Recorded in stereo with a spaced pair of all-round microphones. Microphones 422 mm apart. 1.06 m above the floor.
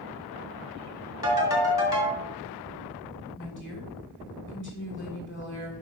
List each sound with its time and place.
1.2 s a ringtone: 50° left (ahead or behind), 2 m
3.4 s a woman speaking: 25° left (ahead or behind), 3 m